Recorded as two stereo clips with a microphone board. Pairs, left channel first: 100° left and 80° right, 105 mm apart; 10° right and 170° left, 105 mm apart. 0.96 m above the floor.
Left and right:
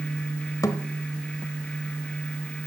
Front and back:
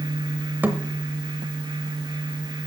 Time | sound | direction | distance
0.6 | a thud | 115° left | 0.8 m